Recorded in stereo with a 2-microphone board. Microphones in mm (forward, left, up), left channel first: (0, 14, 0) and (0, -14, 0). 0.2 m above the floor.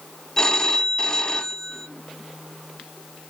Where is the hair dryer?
No hair dryer in this recording.